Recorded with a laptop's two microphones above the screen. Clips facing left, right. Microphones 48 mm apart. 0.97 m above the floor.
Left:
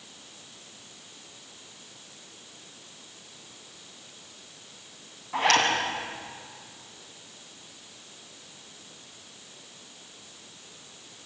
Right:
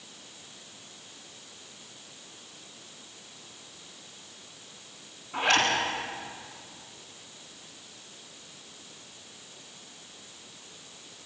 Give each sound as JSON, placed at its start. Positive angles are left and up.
{"t": 5.3, "sound": "a zipper", "side_deg": 80, "distance_m": 7.0}